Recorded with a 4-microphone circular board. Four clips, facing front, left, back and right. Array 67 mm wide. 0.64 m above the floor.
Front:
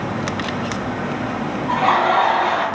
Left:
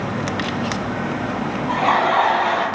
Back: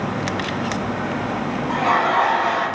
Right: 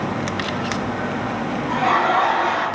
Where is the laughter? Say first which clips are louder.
Left 1 dB, front 3 dB; 30° left, 1.3 m.